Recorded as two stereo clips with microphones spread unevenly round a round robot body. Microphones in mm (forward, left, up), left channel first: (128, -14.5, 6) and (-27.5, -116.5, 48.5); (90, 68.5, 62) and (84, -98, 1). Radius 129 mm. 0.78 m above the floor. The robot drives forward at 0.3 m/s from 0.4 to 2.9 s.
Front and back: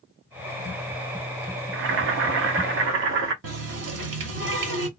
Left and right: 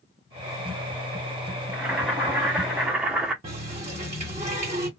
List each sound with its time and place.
1.7 s boiling: 160° right, 0.5 m; by 3.3 s 170° right, 0.8 m
3.4 s a running tap: 150° right, 1.0 m